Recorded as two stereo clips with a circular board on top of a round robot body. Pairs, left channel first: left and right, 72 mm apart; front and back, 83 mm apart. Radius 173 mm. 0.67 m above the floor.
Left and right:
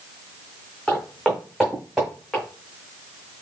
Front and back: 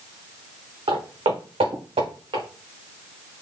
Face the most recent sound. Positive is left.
turn(degrees=-175)